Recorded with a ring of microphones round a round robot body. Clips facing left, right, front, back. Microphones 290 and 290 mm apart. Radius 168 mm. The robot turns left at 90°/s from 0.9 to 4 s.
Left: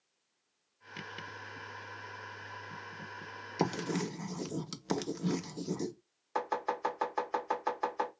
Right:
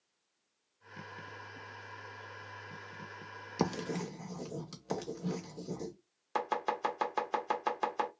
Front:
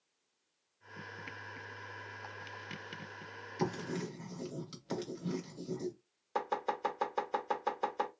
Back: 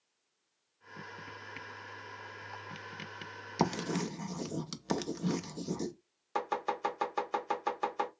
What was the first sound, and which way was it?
Writing, 170° right.